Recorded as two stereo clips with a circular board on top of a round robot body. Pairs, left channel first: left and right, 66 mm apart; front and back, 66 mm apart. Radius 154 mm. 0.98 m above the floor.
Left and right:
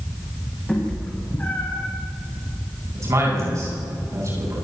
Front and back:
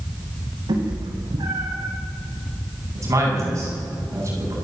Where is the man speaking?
135° right, 9.5 m.